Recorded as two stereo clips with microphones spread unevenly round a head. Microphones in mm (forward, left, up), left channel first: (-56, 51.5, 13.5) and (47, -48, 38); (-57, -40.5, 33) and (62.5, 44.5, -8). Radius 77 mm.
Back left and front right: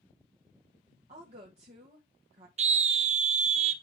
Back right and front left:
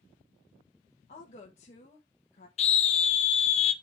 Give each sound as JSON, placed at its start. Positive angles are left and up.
{"t": 1.1, "sound": "a woman speaking", "azimuth_deg": -95, "distance_m": 1.5}
{"t": 2.6, "sound": "a scream", "azimuth_deg": -90, "distance_m": 1.3}